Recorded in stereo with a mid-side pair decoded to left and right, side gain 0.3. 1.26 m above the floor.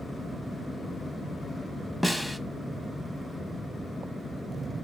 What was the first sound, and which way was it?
A snare drum, 5° right.